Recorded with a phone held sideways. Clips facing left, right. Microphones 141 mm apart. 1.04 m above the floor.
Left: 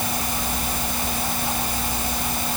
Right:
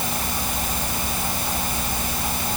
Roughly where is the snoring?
I don't hear snoring.